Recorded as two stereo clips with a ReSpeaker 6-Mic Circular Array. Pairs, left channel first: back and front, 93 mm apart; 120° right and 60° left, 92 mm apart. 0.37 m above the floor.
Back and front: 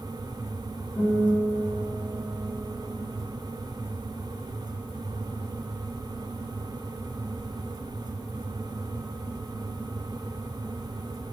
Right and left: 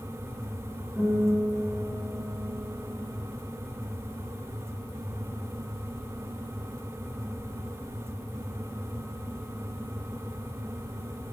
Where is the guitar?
130° left, 4.5 m.